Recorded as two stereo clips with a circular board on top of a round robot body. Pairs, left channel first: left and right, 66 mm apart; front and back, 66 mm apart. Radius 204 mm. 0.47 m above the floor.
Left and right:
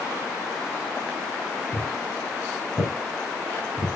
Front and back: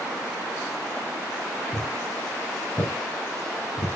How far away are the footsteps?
About 3 m.